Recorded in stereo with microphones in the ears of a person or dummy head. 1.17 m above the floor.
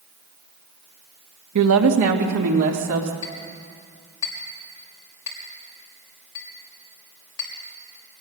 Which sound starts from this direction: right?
A woman speaking, at 1.6 s.